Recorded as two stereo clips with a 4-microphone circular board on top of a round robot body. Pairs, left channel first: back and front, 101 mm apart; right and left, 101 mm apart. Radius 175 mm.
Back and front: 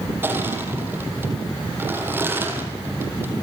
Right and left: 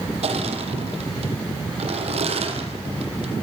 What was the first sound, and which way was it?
Crushing, 70° left.